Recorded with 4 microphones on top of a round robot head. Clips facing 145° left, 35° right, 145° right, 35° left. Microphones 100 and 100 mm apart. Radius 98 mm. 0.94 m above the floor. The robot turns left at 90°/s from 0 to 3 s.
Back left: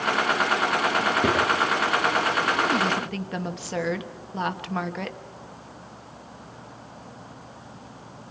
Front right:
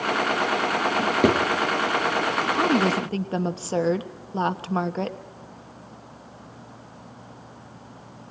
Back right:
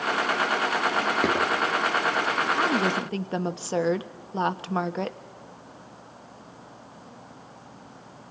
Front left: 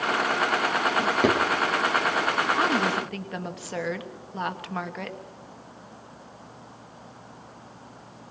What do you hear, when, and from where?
1.0 s a drawer: 35° right, 7 m; by 1.4 s 70° right, 7 m
2.5 s a woman speaking: 45° right, 1.2 m; by 5.2 s 90° right, 1.2 m